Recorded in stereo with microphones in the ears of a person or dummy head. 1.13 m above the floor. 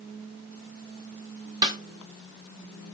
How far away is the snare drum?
About 1.2 m.